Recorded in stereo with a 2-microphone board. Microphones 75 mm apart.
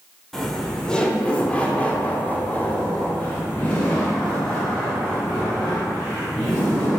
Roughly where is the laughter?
Centre.